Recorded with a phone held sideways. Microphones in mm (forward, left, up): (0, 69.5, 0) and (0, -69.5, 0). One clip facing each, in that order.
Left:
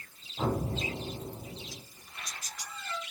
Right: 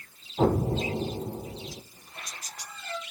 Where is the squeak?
55° right (ahead or behind), 5.5 m.